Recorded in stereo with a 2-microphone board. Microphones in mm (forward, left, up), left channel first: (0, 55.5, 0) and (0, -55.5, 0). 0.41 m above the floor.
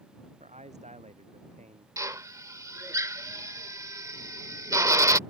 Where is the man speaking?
70° right (ahead or behind).